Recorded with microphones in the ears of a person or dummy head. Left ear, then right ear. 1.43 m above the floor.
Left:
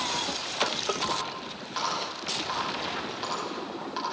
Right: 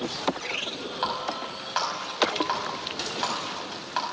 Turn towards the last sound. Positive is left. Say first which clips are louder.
# right 2 dB
turn(degrees=-30)  # may be behind; listen again after turning